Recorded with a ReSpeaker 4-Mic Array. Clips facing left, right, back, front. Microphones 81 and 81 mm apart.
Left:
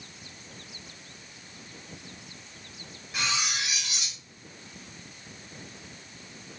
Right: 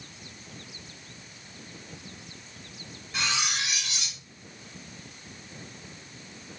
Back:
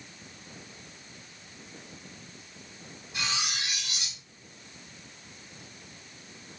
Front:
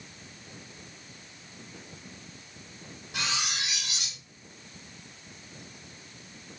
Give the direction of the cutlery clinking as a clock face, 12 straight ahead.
12 o'clock.